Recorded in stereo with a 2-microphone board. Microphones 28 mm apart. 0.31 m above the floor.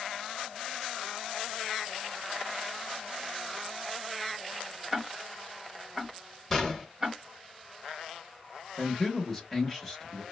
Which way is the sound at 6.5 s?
15° left (ahead or behind).